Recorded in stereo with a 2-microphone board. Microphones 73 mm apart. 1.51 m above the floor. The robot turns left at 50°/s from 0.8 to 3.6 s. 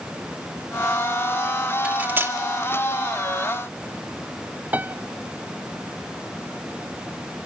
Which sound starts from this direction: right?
A piano, at 4.7 s.